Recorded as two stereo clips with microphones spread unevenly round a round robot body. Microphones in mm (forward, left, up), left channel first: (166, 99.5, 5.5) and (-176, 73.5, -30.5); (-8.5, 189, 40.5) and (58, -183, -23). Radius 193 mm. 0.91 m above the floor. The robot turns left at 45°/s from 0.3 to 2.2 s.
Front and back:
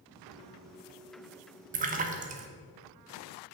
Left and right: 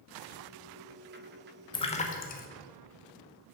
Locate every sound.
1.7 s a splash: 175° right, 0.7 m; by 2.5 s 165° left, 0.7 m